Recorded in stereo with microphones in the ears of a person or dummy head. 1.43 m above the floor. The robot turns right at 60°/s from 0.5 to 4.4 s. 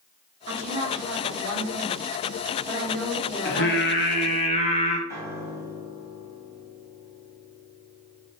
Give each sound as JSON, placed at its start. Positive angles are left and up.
{"t": 0.5, "sound": "a woman speaking", "azimuth_deg": -140, "distance_m": 1.3}
{"t": 3.5, "sound": "singing", "azimuth_deg": 80, "distance_m": 0.7}
{"t": 5.1, "sound": "a piano", "side_deg": 20, "distance_m": 2.0}